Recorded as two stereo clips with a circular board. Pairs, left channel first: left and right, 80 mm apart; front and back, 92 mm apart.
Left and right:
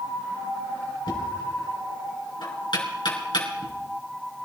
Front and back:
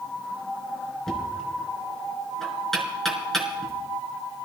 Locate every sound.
1.1 s knocking: 85° left, 4 m